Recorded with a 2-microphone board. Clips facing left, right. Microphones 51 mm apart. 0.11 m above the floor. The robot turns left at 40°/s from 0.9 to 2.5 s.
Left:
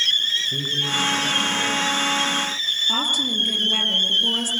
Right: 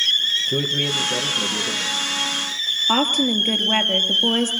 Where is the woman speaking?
45° right (ahead or behind), 2.5 m.